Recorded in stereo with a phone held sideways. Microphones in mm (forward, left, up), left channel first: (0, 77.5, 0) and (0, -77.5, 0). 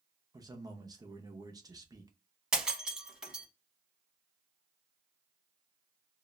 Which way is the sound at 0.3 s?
25° right (ahead or behind).